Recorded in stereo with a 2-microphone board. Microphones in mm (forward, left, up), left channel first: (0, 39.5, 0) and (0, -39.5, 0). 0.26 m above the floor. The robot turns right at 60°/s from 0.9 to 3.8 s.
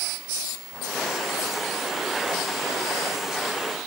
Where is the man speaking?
No man speaking in this recording.